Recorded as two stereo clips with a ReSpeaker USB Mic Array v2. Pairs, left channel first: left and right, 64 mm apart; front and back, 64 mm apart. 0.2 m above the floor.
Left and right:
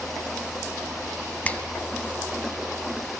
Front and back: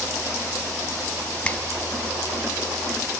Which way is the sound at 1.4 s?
50° left.